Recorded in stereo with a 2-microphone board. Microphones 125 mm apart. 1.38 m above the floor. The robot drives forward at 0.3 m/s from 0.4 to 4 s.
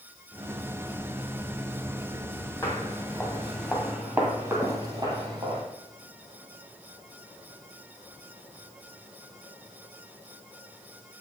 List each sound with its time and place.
2.6 s footsteps: 20° left (ahead or behind), 1.9 m; by 5.6 s 40° right (ahead or behind), 1.7 m